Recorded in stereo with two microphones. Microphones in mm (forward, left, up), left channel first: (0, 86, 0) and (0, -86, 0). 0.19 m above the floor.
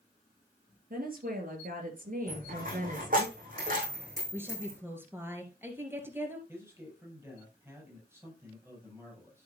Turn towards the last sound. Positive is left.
turn(degrees=-15)  # may be behind; listen again after turning